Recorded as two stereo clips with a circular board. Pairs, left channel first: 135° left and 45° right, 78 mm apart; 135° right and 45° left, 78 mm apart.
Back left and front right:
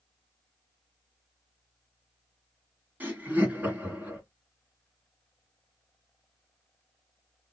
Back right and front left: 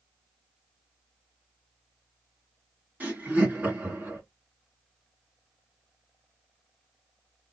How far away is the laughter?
About 1.4 m.